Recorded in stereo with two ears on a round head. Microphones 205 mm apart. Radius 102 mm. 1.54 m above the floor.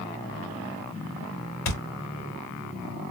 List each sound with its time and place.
1.6 s a thud: 65° left (ahead or behind), 2.5 m